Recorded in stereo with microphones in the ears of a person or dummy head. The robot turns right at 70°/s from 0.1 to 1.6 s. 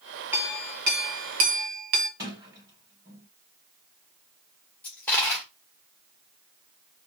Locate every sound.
0.3 s a clink: 170° right, 0.6 m; by 2.1 s 80° right, 0.6 m
2.2 s a sliding door: 15° right (ahead or behind), 3 m
4.8 s a dropped coin: 10° left (ahead or behind), 1.5 m